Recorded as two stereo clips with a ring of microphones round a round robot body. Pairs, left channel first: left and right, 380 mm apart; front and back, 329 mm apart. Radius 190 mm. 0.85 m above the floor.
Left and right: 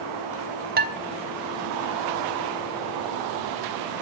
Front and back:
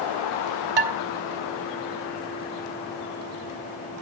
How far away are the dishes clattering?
About 1.1 m.